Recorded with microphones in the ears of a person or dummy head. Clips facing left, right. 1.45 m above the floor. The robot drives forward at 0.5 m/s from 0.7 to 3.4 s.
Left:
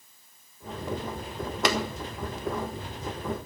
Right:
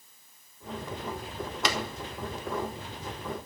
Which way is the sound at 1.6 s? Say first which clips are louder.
Left 5 dB; 45° left (ahead or behind).